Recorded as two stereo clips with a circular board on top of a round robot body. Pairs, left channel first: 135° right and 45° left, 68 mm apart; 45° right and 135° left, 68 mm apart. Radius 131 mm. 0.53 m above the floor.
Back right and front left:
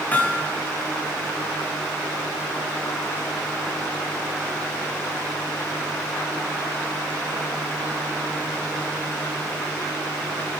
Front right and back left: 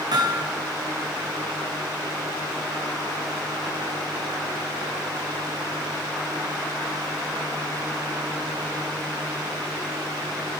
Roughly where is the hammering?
Behind.